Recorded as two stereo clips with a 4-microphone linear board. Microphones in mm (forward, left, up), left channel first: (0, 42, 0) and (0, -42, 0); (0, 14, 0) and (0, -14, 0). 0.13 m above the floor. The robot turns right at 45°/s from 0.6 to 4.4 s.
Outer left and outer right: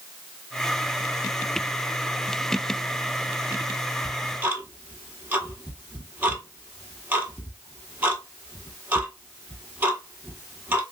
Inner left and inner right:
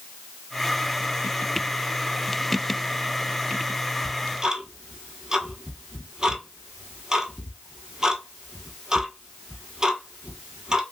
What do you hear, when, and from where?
4.0 s ticking: 5° right (ahead or behind), 1.2 m; by 10.8 s 20° right (ahead or behind), 1.2 m